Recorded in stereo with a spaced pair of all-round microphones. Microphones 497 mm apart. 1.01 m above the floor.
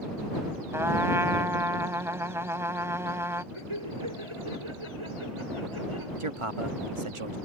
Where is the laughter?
75° right (ahead or behind).